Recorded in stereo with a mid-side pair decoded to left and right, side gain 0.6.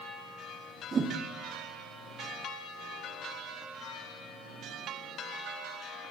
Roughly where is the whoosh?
Ahead right.